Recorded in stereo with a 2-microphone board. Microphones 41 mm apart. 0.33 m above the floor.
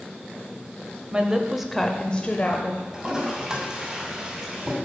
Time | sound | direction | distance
1.1 | a woman speaking | 25° right (ahead or behind) | 1.1 m
2.9 | a toilet flushing | 20° right (ahead or behind) | 2.5 m